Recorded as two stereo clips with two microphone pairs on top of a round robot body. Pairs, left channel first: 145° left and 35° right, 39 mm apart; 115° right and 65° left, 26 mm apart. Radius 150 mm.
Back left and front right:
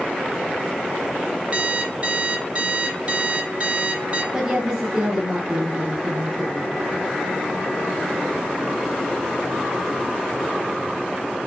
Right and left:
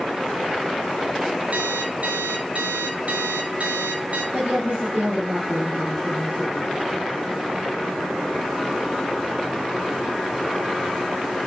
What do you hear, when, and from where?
1.5 s an alarm clock: 25° left, 3 m
4.3 s a woman speaking: 40° left, 4 m